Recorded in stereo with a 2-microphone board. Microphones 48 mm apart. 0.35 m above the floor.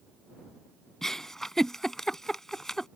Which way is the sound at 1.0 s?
10° left (ahead or behind).